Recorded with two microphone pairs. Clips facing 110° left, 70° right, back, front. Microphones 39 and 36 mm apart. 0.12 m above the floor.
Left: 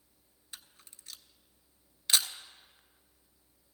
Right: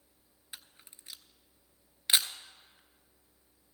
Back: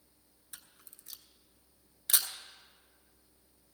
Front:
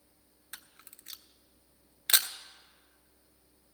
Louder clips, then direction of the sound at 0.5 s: Right 1 dB, front 6 dB; 10° right.